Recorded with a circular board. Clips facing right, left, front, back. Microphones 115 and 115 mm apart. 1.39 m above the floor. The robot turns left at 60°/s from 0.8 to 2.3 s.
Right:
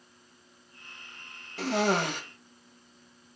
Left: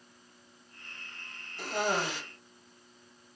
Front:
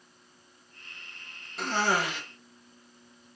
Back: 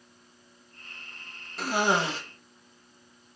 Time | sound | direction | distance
1.6 | a cough | 90° right | 2.5 m